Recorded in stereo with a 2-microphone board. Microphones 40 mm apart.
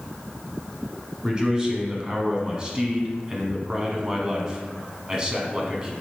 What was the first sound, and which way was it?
A man speaking, 20° right (ahead or behind).